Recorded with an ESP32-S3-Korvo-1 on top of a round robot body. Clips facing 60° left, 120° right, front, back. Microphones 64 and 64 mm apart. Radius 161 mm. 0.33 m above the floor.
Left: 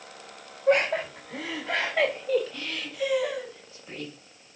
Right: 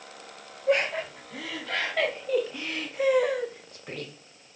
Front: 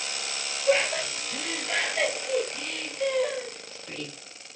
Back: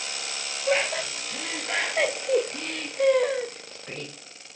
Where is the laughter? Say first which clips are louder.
Left 3 dB, front 1 dB; 100° left, 2.5 m; by 4.1 s 135° right, 2 m.